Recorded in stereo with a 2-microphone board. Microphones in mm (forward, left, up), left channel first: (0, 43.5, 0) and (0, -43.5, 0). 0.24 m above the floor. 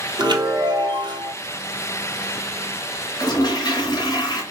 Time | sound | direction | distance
0.2 | a chime | 60° right (ahead or behind) | 1.0 m
3.2 | a toilet flushing | 45° left (ahead or behind) | 2.5 m